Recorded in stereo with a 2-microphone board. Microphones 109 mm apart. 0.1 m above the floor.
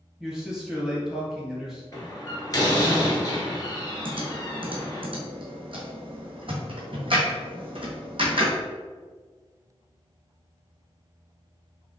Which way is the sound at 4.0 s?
55° right (ahead or behind).